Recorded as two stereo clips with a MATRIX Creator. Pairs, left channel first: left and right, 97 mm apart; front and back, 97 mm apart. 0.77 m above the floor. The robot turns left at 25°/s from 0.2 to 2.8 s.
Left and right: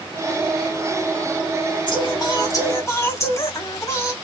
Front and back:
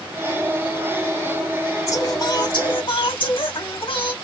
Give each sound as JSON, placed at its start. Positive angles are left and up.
{"t": 1.9, "sound": "singing", "azimuth_deg": 55, "distance_m": 2.0}